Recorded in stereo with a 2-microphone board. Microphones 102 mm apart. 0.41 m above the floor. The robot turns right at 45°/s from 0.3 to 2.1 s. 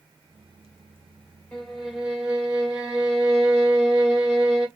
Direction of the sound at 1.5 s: 15° left (ahead or behind).